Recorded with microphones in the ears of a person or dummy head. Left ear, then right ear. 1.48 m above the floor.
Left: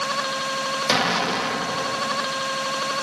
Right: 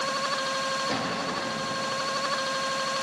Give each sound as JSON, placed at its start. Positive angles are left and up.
{"t": 0.9, "sound": "an explosion", "side_deg": 75, "distance_m": 2.0}